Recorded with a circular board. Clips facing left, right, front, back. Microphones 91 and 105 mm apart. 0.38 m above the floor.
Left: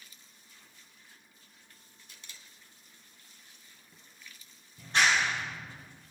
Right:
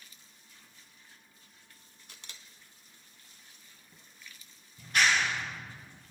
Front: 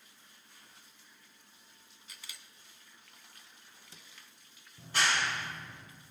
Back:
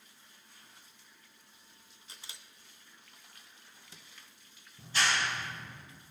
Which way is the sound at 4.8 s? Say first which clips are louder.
Left 1 dB, even; 30° left.